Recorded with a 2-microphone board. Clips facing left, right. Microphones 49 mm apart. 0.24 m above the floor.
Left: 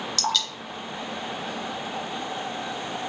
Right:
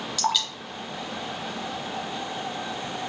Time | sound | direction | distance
0.2 | dripping | 10° right (ahead or behind) | 1.0 m